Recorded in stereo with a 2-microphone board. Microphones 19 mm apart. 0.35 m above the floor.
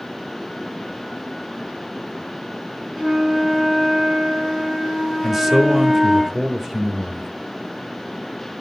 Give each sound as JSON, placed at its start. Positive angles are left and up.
{"t": 3.0, "sound": "a flute", "side_deg": -20, "distance_m": 4.0}
{"t": 5.2, "sound": "a man speaking", "side_deg": -15, "distance_m": 0.9}